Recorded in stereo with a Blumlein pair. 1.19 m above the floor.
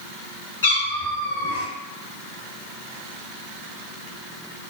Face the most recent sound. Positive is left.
turn(degrees=65)